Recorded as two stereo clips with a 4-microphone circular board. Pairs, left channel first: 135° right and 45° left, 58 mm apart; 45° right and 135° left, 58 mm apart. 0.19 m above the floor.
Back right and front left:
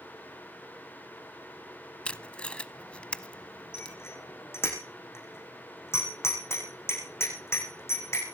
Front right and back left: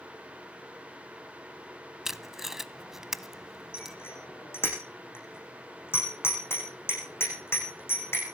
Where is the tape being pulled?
155° right, 0.7 m.